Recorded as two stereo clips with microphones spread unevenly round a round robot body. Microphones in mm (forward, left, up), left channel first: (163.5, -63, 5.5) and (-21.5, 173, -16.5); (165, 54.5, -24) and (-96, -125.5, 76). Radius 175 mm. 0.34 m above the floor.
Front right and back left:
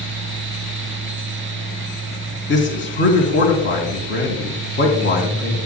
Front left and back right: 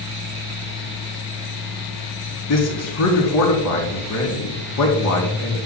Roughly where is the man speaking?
Ahead.